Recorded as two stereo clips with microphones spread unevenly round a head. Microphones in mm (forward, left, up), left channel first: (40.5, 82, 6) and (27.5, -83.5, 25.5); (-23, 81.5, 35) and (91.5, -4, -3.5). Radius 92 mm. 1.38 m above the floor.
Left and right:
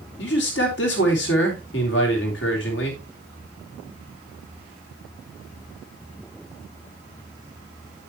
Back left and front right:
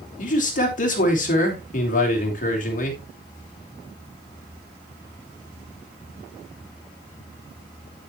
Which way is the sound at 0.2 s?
115° left.